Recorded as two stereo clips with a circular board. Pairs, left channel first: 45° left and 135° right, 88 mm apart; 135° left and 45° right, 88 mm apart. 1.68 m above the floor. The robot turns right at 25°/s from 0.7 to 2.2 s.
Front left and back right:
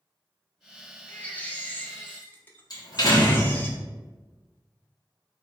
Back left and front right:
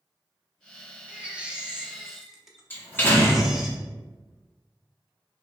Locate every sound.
1.1 s a baby crying: straight ahead, 0.6 m; by 3.7 s 30° left, 0.6 m
2.7 s a door slam: 75° left, 0.9 m